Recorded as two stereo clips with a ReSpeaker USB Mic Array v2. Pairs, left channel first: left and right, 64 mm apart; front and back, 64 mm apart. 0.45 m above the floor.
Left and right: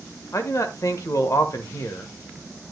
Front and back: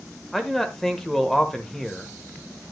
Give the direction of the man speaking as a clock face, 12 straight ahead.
9 o'clock.